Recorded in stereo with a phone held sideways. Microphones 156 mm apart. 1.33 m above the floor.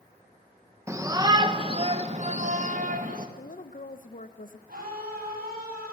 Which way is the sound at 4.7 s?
75° right (ahead or behind).